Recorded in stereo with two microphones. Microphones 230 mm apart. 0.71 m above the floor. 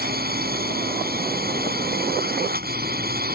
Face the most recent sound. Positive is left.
turn(degrees=-40)  # may be behind; listen again after turning